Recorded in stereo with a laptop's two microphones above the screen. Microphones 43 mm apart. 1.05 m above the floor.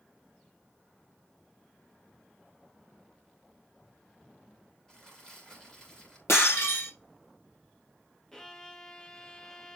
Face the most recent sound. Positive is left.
turn(degrees=15)  # may be behind; listen again after turning